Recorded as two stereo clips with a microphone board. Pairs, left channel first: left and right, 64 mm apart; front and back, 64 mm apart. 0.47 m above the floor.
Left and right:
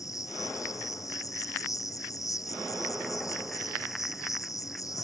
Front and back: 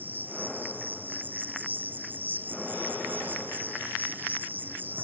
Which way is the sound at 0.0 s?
120° left.